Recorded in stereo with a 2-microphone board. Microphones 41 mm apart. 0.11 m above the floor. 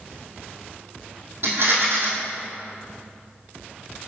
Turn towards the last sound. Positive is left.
turn(degrees=-55)  # may be behind; listen again after turning